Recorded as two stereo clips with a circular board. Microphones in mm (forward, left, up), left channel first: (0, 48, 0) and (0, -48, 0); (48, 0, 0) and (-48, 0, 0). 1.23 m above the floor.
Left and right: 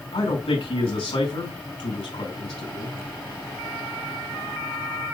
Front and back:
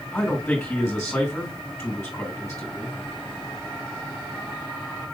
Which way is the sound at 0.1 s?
80° left.